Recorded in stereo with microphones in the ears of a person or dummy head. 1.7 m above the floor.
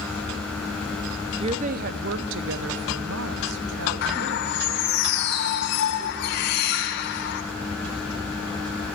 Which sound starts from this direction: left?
A bird, at 4.0 s.